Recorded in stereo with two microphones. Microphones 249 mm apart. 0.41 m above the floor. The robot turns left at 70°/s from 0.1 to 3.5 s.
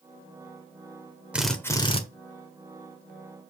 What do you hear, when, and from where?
1.3 s a drill: 170° right, 1.5 m; by 2.0 s 140° left, 1.5 m